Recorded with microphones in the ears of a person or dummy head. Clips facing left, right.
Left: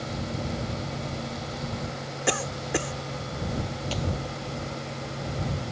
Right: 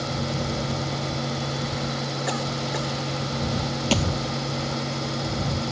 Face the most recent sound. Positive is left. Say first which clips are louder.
# right 8 dB
turn(degrees=-70)  # may be behind; listen again after turning